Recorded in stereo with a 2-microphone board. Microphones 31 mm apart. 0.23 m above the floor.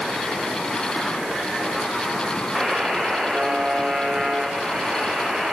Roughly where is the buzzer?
Centre.